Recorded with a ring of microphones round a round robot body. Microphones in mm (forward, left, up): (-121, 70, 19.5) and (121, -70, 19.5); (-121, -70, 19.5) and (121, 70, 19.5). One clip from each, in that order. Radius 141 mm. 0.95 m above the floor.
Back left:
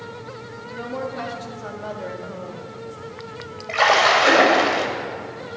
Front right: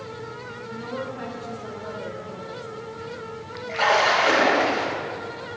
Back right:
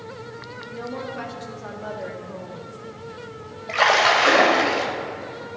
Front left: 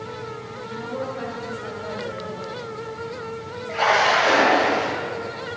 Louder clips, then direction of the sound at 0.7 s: Back left 4 dB, front left 2 dB; 175° left.